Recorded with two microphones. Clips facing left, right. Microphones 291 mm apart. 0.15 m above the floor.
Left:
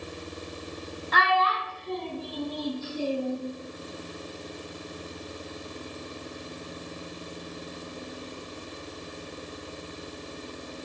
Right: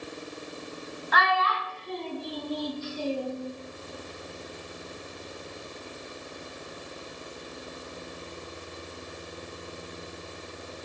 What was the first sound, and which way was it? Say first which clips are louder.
A child speaking: left 2 dB; 30° left (ahead or behind).